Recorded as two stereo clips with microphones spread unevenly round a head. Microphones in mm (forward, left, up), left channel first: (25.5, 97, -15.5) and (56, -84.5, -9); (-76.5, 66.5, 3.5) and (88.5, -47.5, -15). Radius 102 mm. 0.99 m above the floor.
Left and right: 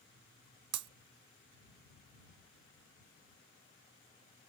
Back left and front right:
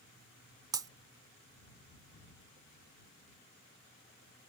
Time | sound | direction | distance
0.7 | breaking glass | 110° right | ?